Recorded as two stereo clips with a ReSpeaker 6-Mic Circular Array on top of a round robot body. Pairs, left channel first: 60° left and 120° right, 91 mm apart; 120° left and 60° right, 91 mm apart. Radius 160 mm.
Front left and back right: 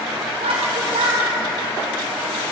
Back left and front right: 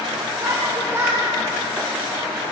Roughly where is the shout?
Behind right.